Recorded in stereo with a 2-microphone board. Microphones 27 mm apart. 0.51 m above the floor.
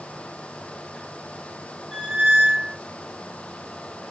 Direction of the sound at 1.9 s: 25° right (ahead or behind).